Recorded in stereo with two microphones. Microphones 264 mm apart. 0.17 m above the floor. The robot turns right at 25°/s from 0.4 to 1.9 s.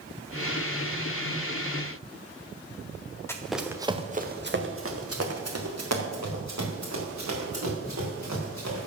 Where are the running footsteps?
10° left (ahead or behind), 1.7 m; by 8.9 s 90° right, 6.5 m.